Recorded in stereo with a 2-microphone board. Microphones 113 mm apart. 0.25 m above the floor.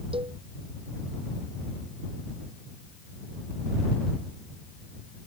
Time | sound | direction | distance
0.1 | a cowbell | 60° right (ahead or behind) | ?